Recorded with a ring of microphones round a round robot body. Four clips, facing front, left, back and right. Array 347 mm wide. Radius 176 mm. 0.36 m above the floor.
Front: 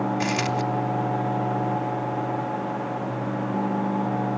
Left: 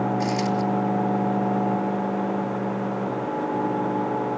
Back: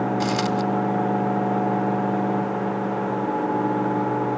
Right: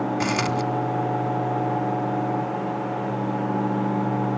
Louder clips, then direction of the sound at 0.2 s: Even, back 2 dB; 100° right.